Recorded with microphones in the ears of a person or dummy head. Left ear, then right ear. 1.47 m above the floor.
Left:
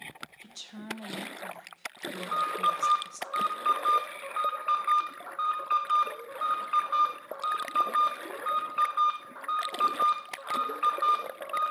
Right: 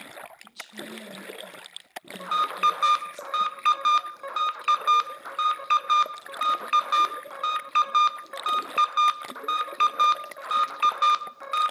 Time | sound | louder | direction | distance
0.4 | a woman speaking | right 5 dB | 35° left (ahead or behind) | 1.2 m
2.2 | an alarm | right 4 dB | 65° right (ahead or behind) | 0.6 m